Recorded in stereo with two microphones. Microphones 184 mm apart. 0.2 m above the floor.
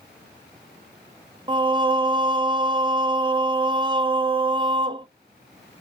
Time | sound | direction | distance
1.5 | singing | 25° right (ahead or behind) | 0.5 m